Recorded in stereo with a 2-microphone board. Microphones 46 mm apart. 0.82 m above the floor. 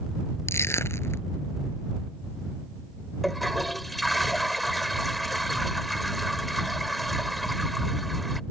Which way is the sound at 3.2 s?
Centre (ahead or behind).